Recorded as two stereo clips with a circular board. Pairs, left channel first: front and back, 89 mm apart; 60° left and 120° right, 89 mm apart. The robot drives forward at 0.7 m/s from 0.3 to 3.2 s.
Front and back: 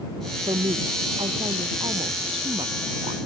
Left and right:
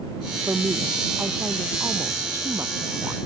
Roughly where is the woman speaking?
Behind.